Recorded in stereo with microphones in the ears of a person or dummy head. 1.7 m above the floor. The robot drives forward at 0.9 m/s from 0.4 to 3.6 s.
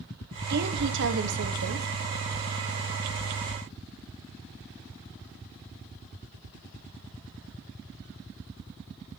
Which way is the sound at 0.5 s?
55° right (ahead or behind).